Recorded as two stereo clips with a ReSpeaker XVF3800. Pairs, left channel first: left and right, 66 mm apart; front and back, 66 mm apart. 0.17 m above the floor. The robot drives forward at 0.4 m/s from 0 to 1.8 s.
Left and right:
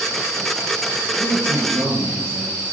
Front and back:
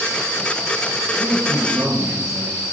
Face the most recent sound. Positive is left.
turn(degrees=-130)